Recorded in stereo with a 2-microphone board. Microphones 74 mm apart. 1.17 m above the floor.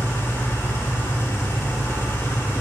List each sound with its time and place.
0.0 s an engine running: 30° left (ahead or behind), 1.0 m